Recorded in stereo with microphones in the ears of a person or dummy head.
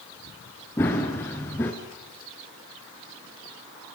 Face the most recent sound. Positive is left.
turn(degrees=5)  # may be behind; listen again after turning